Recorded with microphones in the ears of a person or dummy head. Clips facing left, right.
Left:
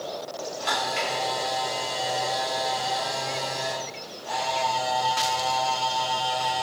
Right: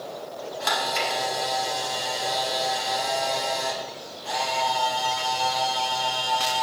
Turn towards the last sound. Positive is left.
turn(degrees=-70)  # may be behind; listen again after turning